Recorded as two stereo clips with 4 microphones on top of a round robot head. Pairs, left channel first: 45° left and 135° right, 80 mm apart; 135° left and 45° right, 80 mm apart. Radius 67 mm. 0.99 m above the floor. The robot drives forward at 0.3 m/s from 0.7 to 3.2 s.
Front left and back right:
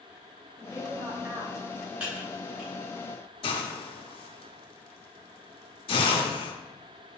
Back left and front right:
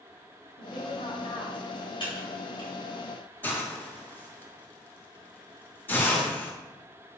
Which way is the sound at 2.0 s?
145° left.